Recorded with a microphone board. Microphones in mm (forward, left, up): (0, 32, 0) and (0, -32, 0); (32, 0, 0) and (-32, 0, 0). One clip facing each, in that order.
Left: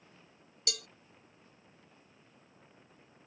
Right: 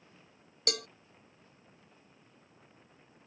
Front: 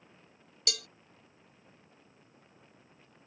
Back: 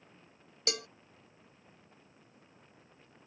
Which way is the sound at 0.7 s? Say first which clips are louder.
Right 7 dB, back 3 dB; 120° right.